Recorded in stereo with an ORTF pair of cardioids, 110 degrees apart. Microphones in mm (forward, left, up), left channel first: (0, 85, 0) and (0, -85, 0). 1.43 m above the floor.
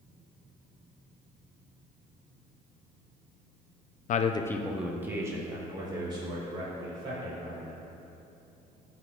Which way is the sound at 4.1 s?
50° left.